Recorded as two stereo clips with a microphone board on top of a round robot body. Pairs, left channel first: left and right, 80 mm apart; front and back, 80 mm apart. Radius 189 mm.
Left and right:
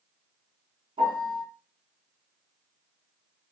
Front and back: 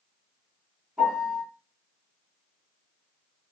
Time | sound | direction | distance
1.0 | a piano | 100° right | 3.5 m